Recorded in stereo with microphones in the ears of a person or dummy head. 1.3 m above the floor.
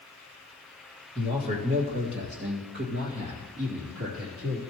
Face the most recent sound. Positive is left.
turn(degrees=-80)